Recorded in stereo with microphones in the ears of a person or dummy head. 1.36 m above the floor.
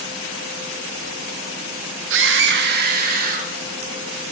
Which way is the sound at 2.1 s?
80° right.